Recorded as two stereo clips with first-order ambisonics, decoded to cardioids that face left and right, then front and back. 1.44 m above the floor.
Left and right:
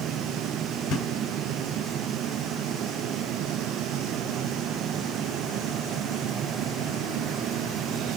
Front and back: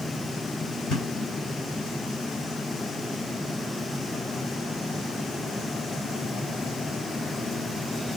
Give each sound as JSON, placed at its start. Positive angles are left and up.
{"t": 0.9, "sound": "a thud", "azimuth_deg": 45, "distance_m": 3.0}